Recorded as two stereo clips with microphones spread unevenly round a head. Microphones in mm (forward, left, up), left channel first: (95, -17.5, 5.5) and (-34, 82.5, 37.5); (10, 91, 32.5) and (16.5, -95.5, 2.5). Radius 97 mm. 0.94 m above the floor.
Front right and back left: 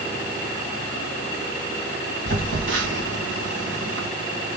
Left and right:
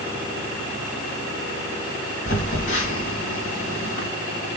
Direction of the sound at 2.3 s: 145° left.